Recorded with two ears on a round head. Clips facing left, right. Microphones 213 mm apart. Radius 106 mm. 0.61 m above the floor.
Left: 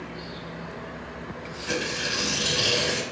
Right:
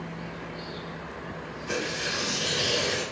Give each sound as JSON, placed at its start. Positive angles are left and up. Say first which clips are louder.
{"t": 1.7, "sound": "tearing paper", "louder": "left 2 dB", "side_deg": 55, "distance_m": 0.8}